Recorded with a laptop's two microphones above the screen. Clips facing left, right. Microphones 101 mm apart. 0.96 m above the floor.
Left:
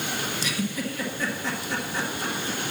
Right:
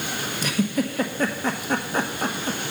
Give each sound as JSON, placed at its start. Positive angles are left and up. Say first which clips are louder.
{"t": 0.4, "sound": "a giggle", "louder": "right 10 dB", "side_deg": -50, "distance_m": 1.0}